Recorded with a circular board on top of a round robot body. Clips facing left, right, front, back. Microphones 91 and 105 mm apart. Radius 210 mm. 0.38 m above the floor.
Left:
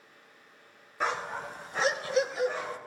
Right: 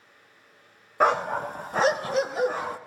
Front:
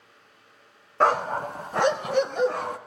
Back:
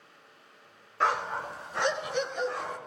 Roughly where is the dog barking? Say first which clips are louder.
Right 9 dB, front 6 dB; ahead right.